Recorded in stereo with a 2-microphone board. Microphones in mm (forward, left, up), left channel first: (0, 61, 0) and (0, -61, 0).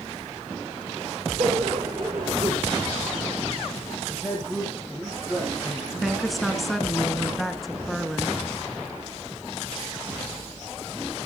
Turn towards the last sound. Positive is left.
turn(degrees=0)  # may be behind; listen again after turning